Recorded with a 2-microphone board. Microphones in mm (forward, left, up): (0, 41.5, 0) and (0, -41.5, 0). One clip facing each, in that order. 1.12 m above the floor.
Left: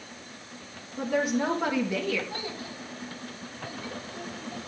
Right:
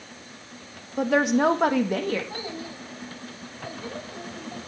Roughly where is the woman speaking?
Right.